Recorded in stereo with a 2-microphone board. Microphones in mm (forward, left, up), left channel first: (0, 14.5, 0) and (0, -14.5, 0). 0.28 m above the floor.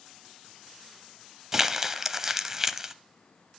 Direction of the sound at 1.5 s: 20° right (ahead or behind).